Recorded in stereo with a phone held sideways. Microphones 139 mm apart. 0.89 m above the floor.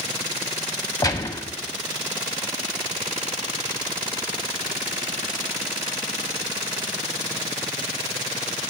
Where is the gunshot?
30° left (ahead or behind), 0.8 m.